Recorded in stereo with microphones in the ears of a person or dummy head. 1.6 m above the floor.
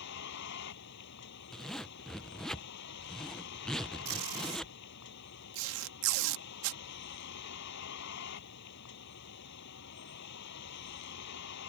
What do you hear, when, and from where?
0.0 s a vehicle: 65° left (ahead or behind)
1.5 s a zipper: 10° left (ahead or behind)
4.0 s tape being pulled: 80° right